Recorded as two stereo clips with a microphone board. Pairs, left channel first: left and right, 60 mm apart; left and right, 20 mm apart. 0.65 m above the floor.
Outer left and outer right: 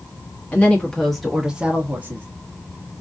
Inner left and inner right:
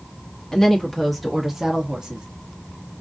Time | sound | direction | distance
0.5 | a woman speaking | 25° left (ahead or behind) | 0.8 m